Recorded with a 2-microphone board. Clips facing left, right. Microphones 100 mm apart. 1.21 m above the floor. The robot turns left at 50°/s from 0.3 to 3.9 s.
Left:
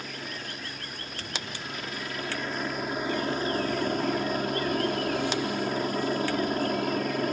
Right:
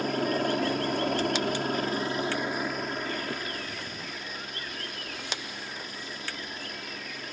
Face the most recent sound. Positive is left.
turn(degrees=120)